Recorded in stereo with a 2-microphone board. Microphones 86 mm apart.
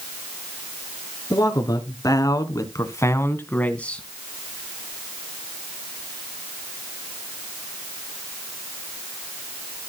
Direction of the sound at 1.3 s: 45° left (ahead or behind).